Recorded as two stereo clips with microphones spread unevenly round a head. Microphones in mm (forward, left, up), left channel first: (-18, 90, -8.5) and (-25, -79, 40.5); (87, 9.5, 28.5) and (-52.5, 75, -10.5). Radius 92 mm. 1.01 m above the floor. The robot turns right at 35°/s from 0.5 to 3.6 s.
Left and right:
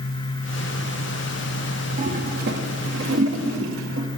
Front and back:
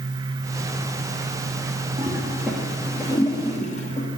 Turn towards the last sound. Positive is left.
turn(degrees=-85)